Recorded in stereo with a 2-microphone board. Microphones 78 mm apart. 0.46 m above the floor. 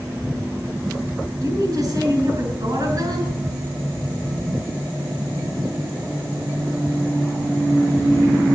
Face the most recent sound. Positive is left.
turn(degrees=-50)  # may be behind; listen again after turning